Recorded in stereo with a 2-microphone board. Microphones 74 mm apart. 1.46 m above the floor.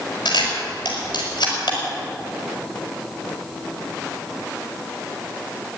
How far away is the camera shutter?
About 5 m.